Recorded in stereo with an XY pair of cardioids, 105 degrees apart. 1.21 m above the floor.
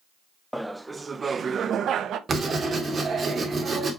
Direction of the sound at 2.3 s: 40° right.